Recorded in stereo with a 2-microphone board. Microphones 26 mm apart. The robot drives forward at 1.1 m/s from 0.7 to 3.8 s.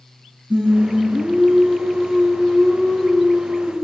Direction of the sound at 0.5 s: 55° right (ahead or behind).